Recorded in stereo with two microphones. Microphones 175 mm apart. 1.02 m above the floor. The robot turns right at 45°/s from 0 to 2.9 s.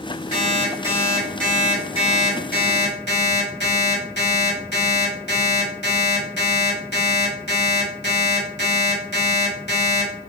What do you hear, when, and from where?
0.3 s an alarm clock: 40° right, 1.5 m; by 10.1 s 75° left, 1.5 m